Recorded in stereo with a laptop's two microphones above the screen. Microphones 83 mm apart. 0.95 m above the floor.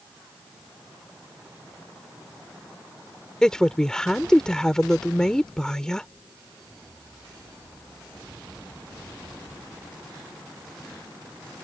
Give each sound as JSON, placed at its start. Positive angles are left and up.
{"t": 3.4, "sound": "a woman speaking", "side_deg": 10}